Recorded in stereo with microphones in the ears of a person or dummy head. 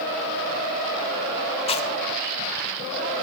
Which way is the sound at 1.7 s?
25° left (ahead or behind).